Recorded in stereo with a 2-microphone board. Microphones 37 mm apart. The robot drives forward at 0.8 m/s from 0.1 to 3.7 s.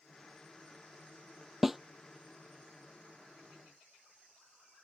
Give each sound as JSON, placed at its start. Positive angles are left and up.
{"t": 1.6, "sound": "a snare drum", "side_deg": -5}